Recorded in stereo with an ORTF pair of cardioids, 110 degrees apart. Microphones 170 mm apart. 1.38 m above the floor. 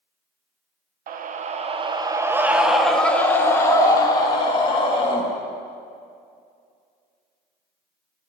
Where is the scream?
55° right, 0.9 m; by 5.2 s 30° left, 2 m.